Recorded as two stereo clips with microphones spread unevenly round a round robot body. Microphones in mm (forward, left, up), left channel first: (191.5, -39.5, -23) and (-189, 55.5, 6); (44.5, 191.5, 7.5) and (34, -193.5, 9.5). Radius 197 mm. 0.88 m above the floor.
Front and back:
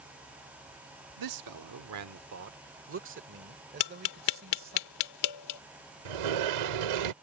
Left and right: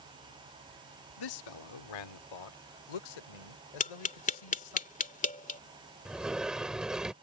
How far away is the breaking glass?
No breaking glass in this recording.